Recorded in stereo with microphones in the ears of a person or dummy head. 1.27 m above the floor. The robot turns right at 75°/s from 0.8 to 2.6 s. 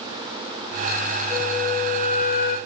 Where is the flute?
10° right, 1.5 m; by 2.6 s 85° left, 1.5 m.